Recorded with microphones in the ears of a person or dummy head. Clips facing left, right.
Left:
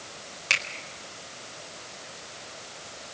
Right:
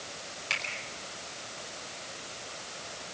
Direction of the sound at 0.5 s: 85° left.